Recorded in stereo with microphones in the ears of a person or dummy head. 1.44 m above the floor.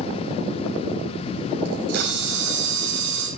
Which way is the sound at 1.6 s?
50° right (ahead or behind).